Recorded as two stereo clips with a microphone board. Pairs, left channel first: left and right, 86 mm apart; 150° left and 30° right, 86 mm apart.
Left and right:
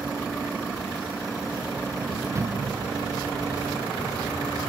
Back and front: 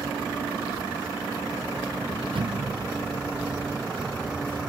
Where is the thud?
35° right.